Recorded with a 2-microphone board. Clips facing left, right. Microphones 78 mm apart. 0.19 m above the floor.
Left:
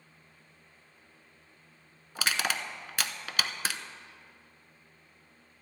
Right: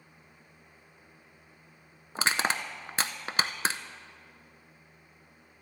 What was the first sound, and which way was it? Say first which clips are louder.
Crushing: right 3 dB; 30° right (ahead or behind).